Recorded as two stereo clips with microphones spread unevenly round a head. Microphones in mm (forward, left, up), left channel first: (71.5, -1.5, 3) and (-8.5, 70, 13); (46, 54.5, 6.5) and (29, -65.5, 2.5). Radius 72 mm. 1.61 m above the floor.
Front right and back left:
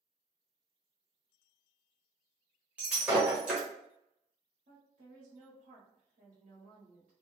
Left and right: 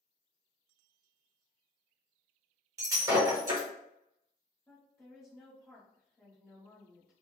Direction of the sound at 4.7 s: 155° left.